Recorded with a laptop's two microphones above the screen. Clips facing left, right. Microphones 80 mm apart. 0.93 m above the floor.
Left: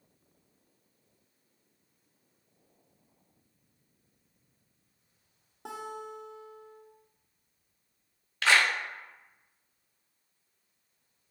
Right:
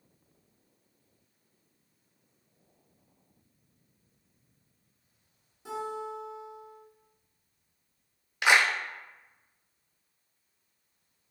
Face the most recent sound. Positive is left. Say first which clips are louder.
# right 1 dB
turn(degrees=-15)  # may be behind; listen again after turning